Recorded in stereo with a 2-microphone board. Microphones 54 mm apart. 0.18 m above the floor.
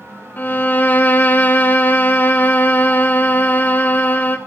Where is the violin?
35° left (ahead or behind), 0.5 m.